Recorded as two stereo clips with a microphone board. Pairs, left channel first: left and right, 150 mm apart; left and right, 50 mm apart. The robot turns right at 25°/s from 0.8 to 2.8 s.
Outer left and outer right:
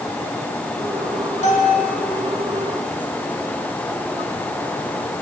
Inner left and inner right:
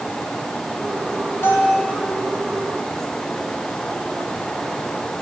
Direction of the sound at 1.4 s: 60° left (ahead or behind).